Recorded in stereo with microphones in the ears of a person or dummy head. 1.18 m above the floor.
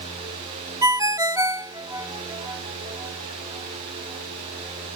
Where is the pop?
I don't hear a pop.